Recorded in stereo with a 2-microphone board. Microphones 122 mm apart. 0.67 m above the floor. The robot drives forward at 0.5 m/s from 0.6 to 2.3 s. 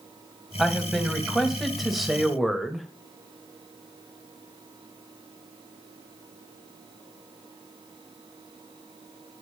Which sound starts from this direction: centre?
A man speaking, at 0.6 s.